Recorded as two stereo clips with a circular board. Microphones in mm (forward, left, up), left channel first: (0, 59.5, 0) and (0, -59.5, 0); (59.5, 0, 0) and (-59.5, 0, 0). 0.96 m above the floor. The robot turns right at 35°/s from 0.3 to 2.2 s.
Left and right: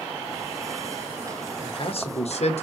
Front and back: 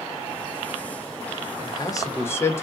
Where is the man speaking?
45° left, 1.0 m; by 2.6 s 65° left, 1.0 m.